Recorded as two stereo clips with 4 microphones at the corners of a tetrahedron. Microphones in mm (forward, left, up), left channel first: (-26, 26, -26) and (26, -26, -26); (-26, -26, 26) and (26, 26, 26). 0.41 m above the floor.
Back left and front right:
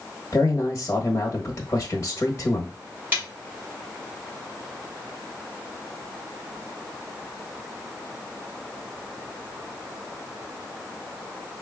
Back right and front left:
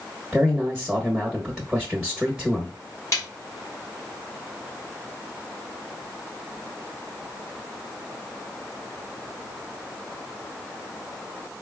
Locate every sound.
0.3 s a man speaking: 135° left, 0.9 m
3.1 s a snare drum: 105° right, 2 m